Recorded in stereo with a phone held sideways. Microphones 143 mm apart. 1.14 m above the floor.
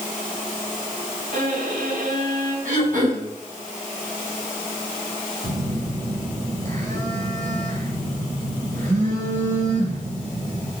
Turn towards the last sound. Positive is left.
turn(degrees=-60)  # may be behind; listen again after turning